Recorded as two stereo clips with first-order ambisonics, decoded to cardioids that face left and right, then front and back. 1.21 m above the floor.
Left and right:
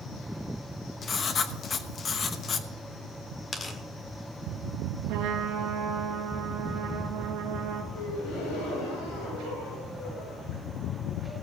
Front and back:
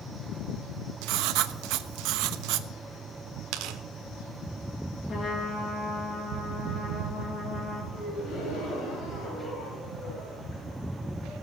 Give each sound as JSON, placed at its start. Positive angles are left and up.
{"t": 1.0, "sound": "writing", "azimuth_deg": 155, "distance_m": 0.9}
{"t": 3.5, "sound": "tearing paper", "azimuth_deg": 160, "distance_m": 1.5}
{"t": 5.1, "sound": "a trumpet", "azimuth_deg": -65, "distance_m": 2.0}
{"t": 7.9, "sound": "a gasp", "azimuth_deg": 50, "distance_m": 7.5}